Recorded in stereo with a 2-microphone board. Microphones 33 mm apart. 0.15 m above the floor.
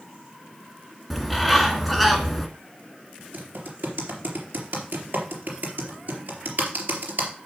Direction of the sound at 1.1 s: Centre (ahead or behind).